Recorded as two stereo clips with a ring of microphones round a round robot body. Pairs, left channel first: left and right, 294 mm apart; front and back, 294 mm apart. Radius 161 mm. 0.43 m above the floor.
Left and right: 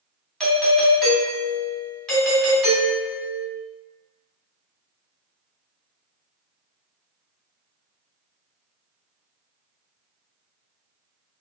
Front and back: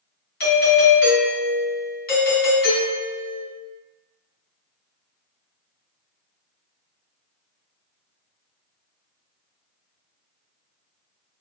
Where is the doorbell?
5° left, 1.7 m.